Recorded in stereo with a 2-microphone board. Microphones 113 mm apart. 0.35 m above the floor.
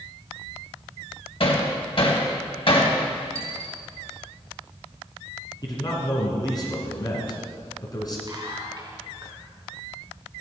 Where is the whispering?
35° right (ahead or behind), 3.5 m.